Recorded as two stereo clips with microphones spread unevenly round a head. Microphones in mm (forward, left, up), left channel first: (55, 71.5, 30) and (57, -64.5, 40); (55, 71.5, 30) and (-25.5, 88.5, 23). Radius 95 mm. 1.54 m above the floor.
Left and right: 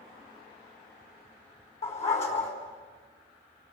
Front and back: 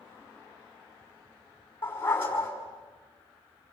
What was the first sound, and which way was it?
A dog barking, 50° left.